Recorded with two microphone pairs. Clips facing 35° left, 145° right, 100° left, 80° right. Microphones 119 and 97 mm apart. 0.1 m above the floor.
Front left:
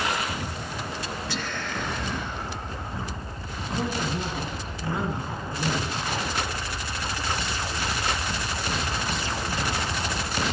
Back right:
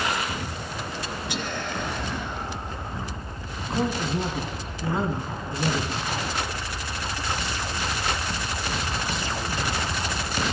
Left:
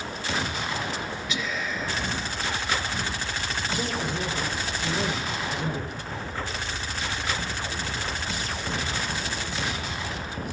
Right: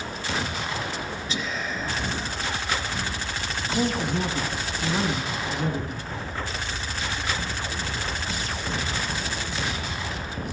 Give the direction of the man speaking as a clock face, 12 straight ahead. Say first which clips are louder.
Back right 3 dB, right 6 dB; 3 o'clock.